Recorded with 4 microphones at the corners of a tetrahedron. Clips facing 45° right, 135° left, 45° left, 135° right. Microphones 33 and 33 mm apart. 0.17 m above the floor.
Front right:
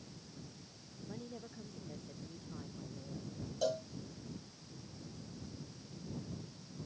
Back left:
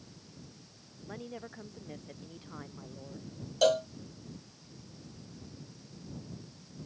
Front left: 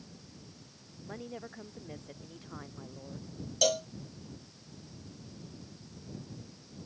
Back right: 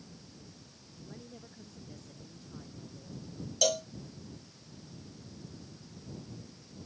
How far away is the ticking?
I don't hear ticking.